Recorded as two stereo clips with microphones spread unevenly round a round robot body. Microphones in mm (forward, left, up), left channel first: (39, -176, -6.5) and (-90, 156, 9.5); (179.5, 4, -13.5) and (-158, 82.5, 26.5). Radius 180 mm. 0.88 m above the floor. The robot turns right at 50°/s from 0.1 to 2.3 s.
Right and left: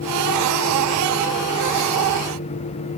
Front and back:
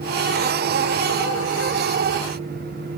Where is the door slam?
I don't hear a door slam.